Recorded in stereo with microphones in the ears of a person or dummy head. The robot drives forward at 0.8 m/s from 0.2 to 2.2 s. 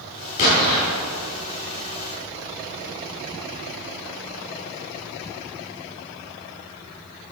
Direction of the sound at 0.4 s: 55° left (ahead or behind).